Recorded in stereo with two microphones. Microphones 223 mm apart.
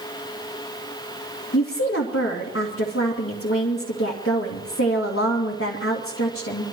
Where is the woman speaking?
75° left (ahead or behind), 2.5 m.